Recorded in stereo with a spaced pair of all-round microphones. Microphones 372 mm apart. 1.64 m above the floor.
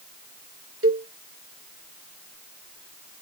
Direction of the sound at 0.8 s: 35° right (ahead or behind).